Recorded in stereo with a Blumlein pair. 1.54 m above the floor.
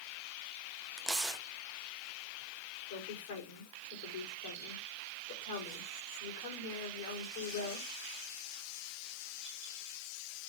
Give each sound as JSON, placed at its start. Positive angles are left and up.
{"t": 1.0, "sound": "tearing paper", "azimuth_deg": -5, "distance_m": 1.3}
{"t": 2.9, "sound": "a woman speaking", "azimuth_deg": 55, "distance_m": 4.0}